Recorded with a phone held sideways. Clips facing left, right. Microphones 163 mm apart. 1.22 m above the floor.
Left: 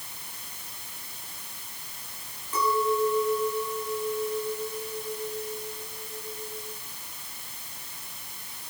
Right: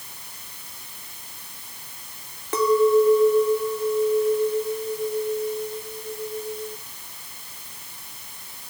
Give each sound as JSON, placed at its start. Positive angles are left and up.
{"t": 2.5, "sound": "a clink", "side_deg": -80, "distance_m": 2.0}